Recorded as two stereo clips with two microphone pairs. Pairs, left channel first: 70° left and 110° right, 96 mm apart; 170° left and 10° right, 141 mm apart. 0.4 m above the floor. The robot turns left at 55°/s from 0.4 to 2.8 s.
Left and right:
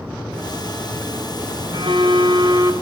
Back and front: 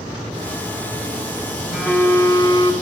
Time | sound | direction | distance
1.7 | a phone buzzing | 105° right | 2.5 m